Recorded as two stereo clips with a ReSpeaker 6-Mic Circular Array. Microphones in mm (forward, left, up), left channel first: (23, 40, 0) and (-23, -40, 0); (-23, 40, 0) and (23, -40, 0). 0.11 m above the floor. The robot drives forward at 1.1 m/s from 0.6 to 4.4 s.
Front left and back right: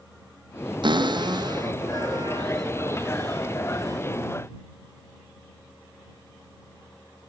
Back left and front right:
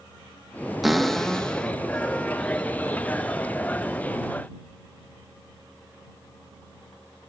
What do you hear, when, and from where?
0.8 s a cupboard door: 150° right, 1.6 m; by 4.0 s 170° right, 5 m